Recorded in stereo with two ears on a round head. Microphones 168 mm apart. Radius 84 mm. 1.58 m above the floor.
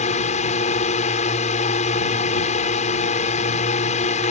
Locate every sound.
0.0 s a drone: 40° left (ahead or behind)